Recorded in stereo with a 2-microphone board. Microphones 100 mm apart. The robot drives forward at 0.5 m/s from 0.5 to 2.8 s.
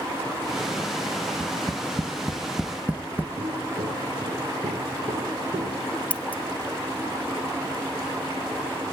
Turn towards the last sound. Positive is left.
turn(degrees=15)  # may be behind; listen again after turning